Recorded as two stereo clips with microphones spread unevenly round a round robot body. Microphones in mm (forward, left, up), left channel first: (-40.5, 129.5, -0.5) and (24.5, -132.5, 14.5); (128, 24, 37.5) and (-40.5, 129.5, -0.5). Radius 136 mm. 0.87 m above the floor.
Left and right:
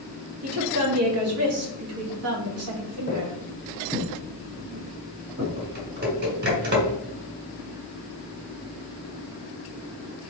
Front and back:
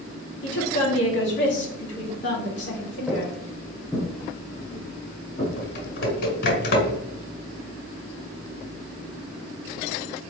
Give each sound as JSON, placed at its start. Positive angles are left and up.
{"t": 0.4, "sound": "a woman speaking", "azimuth_deg": -60, "distance_m": 1.4}
{"t": 3.1, "sound": "footsteps", "azimuth_deg": 50, "distance_m": 1.0}
{"t": 5.6, "sound": "typing on a keyboard", "azimuth_deg": -25, "distance_m": 1.6}